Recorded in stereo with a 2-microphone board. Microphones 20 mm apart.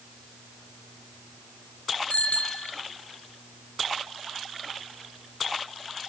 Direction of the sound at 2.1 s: 80° left.